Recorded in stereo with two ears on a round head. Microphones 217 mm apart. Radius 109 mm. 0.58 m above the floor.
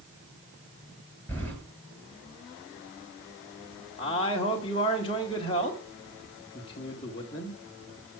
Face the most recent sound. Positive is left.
turn(degrees=25)  # may be behind; listen again after turning